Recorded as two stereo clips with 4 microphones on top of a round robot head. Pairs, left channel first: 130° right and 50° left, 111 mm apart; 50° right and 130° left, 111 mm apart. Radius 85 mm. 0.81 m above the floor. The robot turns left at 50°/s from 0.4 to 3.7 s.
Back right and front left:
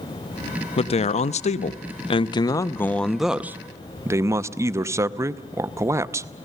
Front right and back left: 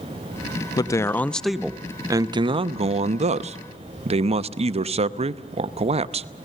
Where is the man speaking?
100° right, 0.8 m; by 6.3 s 110° left, 0.8 m.